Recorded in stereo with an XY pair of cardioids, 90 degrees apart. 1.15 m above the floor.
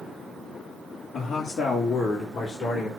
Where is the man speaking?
65° left, 2.5 m; by 2.9 s 55° left, 4 m.